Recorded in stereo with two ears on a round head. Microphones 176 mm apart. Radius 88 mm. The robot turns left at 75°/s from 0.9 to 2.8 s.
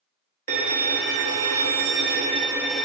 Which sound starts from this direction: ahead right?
A violin, at 0.5 s.